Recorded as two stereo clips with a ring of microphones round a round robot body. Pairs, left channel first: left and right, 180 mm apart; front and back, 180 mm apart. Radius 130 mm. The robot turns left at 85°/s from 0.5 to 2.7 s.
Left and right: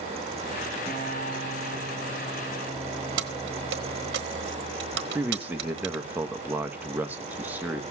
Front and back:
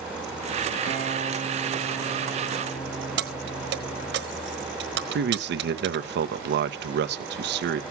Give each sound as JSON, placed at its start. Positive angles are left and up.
{"t": 0.9, "sound": "a guitar", "azimuth_deg": 170, "distance_m": 3.5}
{"t": 3.2, "sound": "keys jangling", "azimuth_deg": -135, "distance_m": 1.3}
{"t": 5.2, "sound": "a man speaking", "azimuth_deg": -170, "distance_m": 1.0}